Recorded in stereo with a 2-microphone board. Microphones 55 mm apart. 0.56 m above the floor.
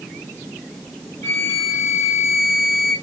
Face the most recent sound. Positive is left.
turn(degrees=35)  # may be behind; listen again after turning